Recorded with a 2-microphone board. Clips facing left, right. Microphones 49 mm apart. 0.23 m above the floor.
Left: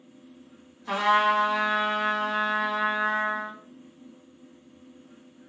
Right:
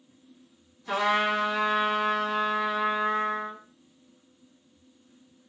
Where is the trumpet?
35° left (ahead or behind), 1.6 m.